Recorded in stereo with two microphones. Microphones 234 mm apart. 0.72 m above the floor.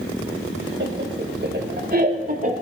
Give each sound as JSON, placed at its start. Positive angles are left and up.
{"t": 0.8, "sound": "laughter", "side_deg": -55, "distance_m": 3.0}